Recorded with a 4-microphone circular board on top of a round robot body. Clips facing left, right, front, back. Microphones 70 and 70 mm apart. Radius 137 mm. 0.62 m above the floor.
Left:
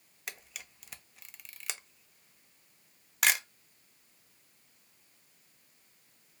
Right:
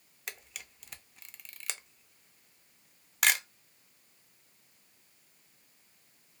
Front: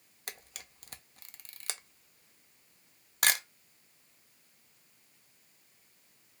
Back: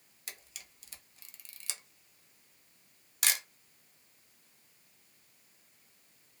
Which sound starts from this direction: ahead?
A camera shutter, at 0.3 s.